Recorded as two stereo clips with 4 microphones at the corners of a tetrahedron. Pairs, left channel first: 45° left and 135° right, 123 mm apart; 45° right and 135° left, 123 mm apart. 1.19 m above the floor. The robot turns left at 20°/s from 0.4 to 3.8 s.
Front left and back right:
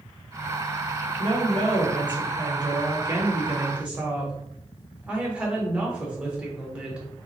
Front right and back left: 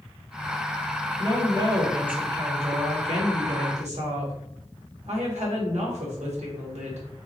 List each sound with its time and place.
1.2 s a woman speaking: 165° right, 1.1 m; by 7.1 s 145° left, 1.1 m